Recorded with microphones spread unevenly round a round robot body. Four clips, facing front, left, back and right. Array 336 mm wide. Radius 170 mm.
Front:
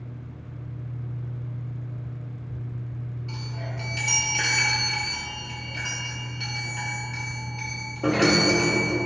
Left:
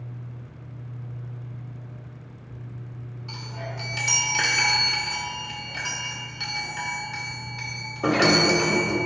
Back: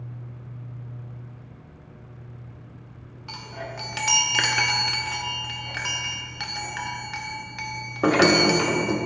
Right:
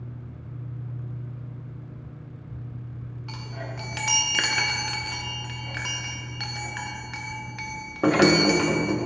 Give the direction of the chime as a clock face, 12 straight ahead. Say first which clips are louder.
Left 1 dB, back 4 dB; 6 o'clock.